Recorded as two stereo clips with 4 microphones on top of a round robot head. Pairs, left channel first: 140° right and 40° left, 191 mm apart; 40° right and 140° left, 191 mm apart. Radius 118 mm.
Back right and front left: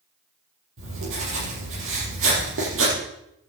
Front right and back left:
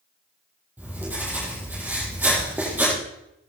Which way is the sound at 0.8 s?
60° left.